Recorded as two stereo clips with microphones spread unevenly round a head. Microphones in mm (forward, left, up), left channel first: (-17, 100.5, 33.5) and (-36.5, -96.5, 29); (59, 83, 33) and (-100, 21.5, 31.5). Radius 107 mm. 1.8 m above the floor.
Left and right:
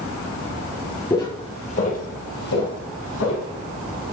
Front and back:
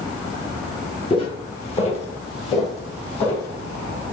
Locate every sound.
1.1 s footsteps: 20° left, 1.9 m; by 3.5 s 75° left, 4 m